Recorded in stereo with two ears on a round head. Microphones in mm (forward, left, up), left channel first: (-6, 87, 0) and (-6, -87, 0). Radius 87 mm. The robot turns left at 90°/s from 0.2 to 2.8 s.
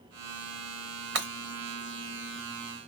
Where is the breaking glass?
60° right (ahead or behind), 0.9 m; by 1.3 s 70° right (ahead or behind), 0.9 m.